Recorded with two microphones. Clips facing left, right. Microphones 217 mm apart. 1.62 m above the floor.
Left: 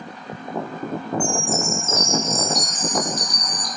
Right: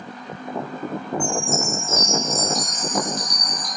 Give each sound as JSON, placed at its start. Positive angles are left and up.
{"t": 1.2, "sound": "a chime", "side_deg": -40, "distance_m": 8.0}